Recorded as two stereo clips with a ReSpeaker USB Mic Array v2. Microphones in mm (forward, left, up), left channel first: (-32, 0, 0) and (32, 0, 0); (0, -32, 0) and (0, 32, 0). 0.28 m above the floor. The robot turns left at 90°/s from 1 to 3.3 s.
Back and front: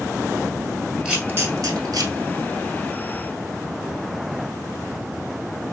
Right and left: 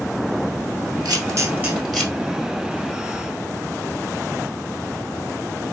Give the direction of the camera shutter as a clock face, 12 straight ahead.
9 o'clock.